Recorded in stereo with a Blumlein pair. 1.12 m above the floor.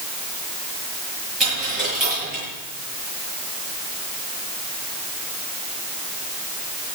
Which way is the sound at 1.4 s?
10° right.